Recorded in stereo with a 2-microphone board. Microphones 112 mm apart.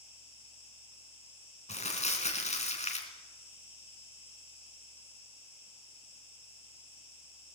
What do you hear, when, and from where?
0.0 s an insect: 55° left (ahead or behind), 8.5 m
1.7 s crumpling: 90° left, 2.5 m